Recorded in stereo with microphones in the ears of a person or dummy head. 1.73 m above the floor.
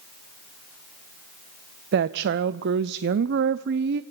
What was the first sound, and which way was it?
A woman speaking, 60° right (ahead or behind).